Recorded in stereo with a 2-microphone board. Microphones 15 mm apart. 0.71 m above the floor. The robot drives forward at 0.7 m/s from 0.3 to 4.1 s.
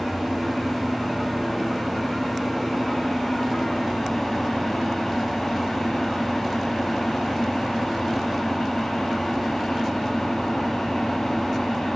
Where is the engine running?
15° left (ahead or behind), 5 m; by 12.0 s 30° left (ahead or behind), 2.5 m.